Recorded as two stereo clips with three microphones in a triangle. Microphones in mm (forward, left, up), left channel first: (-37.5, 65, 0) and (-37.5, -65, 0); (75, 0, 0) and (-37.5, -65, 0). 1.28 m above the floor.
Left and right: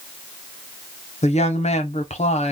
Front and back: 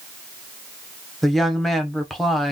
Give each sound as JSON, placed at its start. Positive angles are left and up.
{"t": 1.2, "sound": "a woman speaking", "azimuth_deg": 120, "distance_m": 0.7}